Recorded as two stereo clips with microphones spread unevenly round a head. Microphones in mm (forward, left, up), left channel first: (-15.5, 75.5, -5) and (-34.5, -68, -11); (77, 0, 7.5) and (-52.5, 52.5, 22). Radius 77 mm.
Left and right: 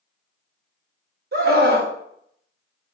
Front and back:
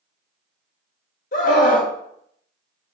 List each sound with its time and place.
1.3 s a scream: 65° right, 1.4 m